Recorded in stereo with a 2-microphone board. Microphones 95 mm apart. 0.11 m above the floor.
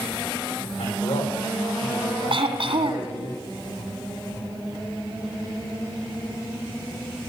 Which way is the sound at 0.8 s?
80° left.